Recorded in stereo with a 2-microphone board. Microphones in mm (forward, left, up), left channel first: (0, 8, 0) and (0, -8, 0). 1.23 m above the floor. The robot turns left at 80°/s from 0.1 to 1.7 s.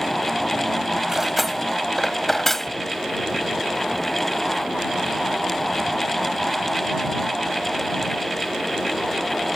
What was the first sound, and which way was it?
Cutlery clinking, 35° right (ahead or behind).